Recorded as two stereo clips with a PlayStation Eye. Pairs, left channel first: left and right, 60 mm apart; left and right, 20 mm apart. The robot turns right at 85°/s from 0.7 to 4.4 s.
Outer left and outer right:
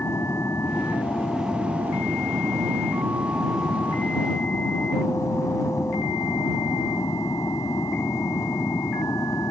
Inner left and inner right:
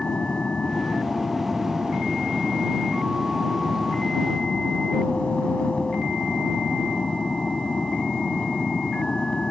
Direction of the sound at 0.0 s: 120° left.